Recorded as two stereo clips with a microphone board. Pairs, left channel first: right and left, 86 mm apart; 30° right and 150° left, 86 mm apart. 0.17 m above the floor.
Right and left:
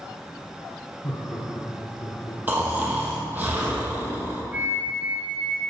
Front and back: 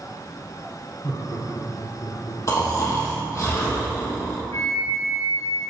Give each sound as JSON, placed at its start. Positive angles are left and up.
{"t": 1.0, "sound": "laughter", "azimuth_deg": -45, "distance_m": 1.7}
{"t": 2.5, "sound": "snoring", "azimuth_deg": 20, "distance_m": 1.3}
{"t": 4.5, "sound": "a flute", "azimuth_deg": 20, "distance_m": 1.0}